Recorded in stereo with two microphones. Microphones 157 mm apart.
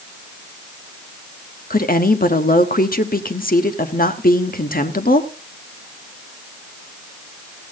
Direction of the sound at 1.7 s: 60° left (ahead or behind).